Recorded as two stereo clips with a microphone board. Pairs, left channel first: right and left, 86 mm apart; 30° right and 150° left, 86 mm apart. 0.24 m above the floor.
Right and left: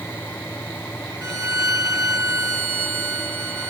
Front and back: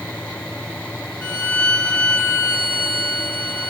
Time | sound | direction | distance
1.2 | a violin | 45° left | 1.4 m